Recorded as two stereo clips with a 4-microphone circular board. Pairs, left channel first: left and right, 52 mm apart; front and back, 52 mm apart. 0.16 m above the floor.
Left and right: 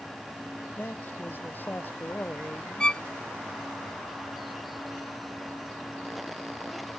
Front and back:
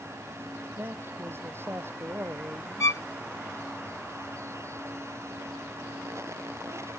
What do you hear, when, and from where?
0.8 s a man speaking: 140° left
2.8 s a violin: 15° left